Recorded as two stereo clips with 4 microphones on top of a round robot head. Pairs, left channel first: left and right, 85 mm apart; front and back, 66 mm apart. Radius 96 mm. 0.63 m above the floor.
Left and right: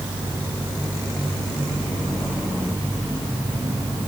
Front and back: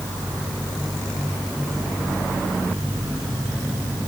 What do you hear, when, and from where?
Only background noise.